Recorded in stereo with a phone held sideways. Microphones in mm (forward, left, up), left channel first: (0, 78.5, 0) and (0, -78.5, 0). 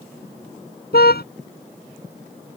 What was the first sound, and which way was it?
A car horn, 85° left.